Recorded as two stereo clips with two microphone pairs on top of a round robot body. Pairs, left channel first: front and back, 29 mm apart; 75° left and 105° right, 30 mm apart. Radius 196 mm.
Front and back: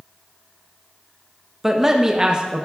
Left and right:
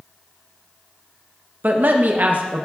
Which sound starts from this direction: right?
A man speaking, at 1.6 s.